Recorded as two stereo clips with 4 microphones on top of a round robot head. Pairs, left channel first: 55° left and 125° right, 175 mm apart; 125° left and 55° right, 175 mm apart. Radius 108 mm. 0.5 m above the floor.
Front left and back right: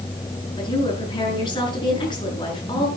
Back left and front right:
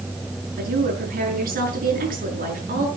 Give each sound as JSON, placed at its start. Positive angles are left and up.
{"t": 0.6, "sound": "a woman speaking", "azimuth_deg": -15, "distance_m": 7.0}